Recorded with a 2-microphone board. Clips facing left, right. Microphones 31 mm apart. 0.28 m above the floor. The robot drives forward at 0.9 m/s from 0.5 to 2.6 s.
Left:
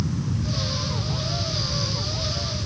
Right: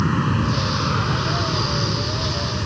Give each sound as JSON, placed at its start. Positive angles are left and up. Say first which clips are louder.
{"t": 0.0, "sound": "an aircraft", "louder": "right 8 dB", "side_deg": -65}